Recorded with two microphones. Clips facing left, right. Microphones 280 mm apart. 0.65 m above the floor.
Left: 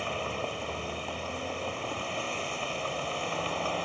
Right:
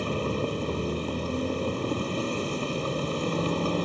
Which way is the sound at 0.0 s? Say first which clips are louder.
Right 7 dB; 45° right (ahead or behind).